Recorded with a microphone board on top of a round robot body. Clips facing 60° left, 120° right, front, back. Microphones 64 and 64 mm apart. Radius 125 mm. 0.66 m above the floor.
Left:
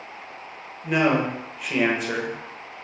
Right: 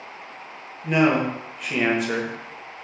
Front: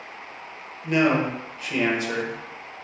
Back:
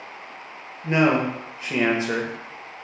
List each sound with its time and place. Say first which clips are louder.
0.8 s a man speaking: right 1 dB, back 1 dB; 150° left, 0.9 m